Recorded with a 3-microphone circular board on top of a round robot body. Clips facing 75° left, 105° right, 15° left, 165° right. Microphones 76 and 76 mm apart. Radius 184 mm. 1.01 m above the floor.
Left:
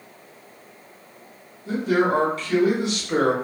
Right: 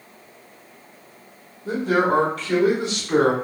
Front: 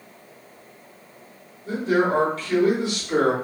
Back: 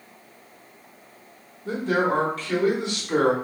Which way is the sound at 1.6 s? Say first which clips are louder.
Right 1 dB, front 2 dB; 130° right.